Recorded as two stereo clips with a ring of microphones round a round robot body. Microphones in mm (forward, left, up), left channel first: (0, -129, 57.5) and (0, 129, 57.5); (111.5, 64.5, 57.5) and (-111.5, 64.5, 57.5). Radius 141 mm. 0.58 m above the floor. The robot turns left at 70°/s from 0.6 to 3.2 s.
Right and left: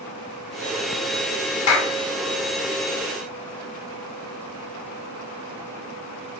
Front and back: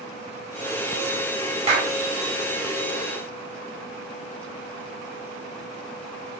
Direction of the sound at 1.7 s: 115° right.